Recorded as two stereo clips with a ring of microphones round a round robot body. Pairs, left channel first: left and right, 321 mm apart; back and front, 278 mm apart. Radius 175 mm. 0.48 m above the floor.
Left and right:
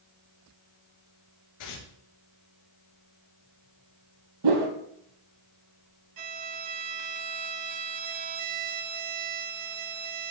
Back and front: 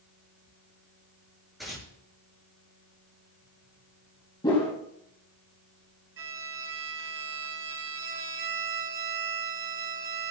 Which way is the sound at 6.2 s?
55° right.